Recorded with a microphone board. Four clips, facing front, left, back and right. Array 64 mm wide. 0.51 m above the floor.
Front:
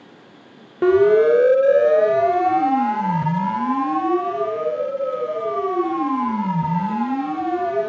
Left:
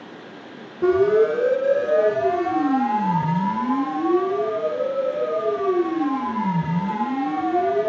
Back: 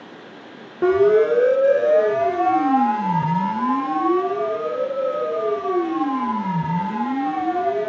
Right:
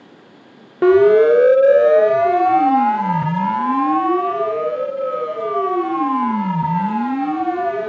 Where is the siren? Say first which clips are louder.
Right 6 dB, front 2 dB; 80° right, 2 m; by 7.9 s 75° right, 6.5 m.